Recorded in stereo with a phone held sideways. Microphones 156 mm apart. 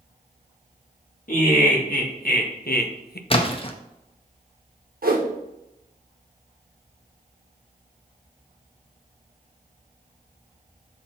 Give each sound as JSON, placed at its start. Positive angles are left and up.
{"t": 1.3, "sound": "laughter", "side_deg": 65, "distance_m": 2.0}
{"t": 3.3, "sound": "a splash", "side_deg": 35, "distance_m": 0.8}
{"t": 5.0, "sound": "a whoosh", "side_deg": -70, "distance_m": 1.2}